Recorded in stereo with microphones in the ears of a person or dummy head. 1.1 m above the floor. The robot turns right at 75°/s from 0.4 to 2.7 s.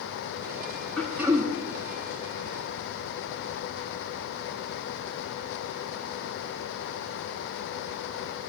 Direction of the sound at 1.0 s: 170° left.